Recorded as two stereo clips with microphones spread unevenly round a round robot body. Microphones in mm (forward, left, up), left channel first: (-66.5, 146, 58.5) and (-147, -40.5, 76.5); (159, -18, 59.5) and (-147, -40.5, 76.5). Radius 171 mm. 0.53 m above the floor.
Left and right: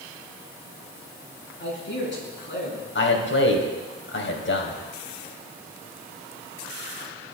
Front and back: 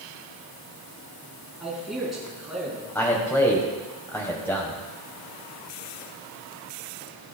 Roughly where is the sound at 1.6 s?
Left.